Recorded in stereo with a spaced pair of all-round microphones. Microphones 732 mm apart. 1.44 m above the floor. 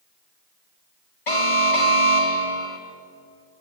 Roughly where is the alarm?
Left.